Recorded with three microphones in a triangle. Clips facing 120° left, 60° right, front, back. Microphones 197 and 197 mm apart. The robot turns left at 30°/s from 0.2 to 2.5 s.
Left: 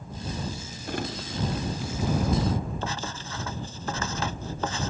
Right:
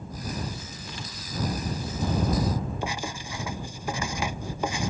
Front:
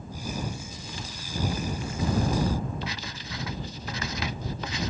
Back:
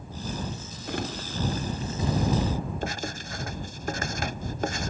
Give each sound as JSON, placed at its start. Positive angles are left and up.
{"t": 0.9, "sound": "crumpling", "azimuth_deg": 155}
{"t": 2.8, "sound": "writing", "azimuth_deg": -135}